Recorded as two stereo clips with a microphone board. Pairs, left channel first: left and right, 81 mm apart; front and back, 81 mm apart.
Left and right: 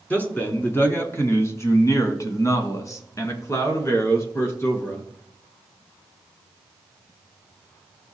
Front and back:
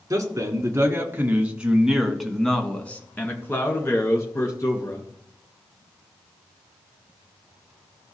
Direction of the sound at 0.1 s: 150° left.